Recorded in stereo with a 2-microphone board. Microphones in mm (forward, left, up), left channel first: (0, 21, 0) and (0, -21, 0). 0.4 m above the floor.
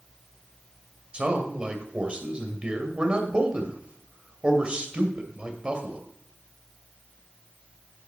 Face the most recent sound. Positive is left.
turn(degrees=-25)  # may be behind; listen again after turning